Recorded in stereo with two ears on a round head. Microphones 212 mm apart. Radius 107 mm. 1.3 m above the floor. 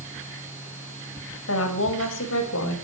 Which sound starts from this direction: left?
A woman speaking, at 1.5 s.